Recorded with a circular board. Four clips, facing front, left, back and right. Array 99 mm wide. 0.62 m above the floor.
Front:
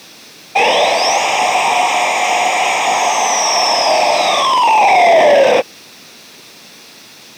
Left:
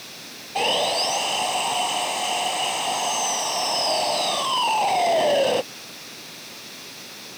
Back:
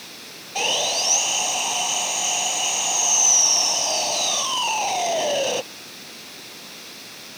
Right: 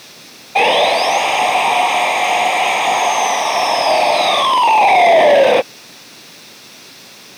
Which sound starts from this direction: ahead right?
Sawing, at 0.6 s.